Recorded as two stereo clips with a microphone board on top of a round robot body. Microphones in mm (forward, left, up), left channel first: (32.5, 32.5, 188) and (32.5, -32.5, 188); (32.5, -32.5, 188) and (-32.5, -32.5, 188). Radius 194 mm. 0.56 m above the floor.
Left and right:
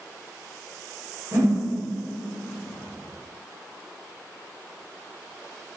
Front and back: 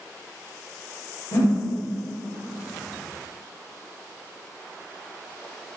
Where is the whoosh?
25° right, 1.1 m.